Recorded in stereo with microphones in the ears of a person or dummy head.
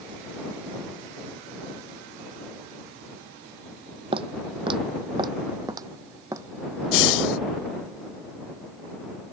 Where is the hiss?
75° left (ahead or behind).